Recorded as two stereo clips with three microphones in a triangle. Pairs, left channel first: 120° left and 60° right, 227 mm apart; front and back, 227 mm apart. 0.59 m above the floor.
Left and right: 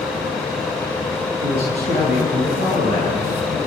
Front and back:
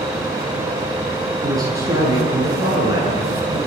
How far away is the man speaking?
About 8 m.